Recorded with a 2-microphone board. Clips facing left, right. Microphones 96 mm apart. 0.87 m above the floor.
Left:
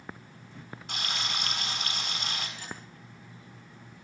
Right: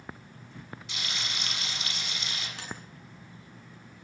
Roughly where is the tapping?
Right.